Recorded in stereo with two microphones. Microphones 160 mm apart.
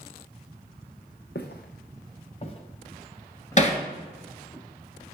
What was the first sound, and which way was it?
Footsteps, 80° left.